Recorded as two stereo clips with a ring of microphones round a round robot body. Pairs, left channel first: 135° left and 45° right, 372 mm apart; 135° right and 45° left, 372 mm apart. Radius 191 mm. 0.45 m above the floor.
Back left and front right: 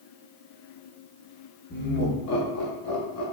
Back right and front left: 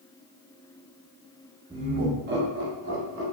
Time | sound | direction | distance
1.7 | laughter | 105° left | 0.7 m